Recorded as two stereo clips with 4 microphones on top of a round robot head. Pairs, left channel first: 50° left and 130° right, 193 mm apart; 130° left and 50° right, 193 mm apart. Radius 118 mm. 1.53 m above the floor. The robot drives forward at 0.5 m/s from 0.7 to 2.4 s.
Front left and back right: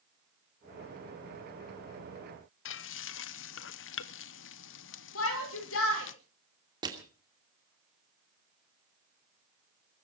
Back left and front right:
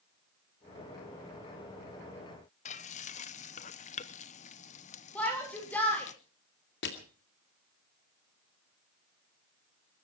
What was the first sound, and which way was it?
Frying, 75° left.